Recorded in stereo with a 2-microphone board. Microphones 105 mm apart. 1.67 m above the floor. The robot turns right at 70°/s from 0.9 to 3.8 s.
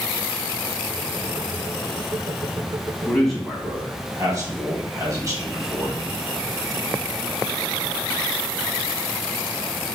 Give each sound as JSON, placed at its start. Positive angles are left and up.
{"t": 3.0, "sound": "a man speaking", "azimuth_deg": 160, "distance_m": 2.0}